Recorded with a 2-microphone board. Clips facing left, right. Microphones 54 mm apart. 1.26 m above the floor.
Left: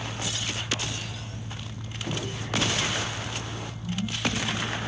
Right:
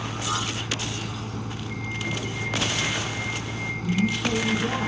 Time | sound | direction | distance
0.0 | a vehicle | 65° right (ahead or behind) | ?